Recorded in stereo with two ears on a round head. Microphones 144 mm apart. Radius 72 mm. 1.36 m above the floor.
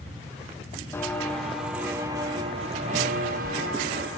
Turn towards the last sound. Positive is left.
turn(degrees=-65)  # may be behind; listen again after turning